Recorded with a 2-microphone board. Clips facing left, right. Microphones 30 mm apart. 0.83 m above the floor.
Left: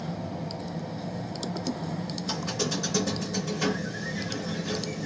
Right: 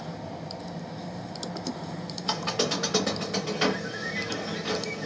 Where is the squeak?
60° right (ahead or behind), 1.0 m.